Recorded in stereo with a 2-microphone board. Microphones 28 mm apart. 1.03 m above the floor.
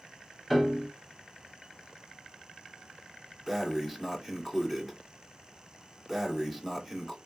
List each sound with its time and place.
0.5 s a piano: centre (ahead or behind), 0.8 m
3.5 s breathing: centre (ahead or behind), 1.4 m